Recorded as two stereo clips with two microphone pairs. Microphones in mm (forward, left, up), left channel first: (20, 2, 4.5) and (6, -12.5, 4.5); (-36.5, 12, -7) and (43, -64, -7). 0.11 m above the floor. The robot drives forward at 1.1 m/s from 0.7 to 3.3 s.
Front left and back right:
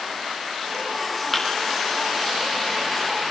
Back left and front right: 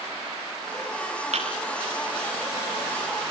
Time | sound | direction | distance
1.3 | a thud | 35° right | 6.5 m